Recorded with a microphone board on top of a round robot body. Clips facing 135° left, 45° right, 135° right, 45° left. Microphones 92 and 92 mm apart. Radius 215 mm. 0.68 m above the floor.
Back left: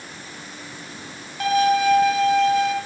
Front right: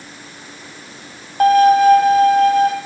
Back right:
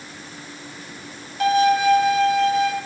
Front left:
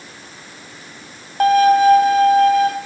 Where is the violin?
Straight ahead, 1.3 m.